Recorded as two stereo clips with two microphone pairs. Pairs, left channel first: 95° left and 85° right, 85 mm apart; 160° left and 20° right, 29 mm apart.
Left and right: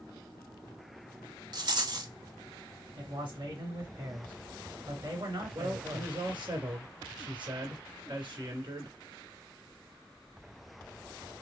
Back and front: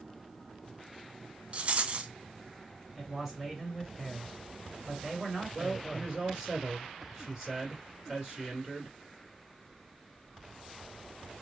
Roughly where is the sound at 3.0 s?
Right.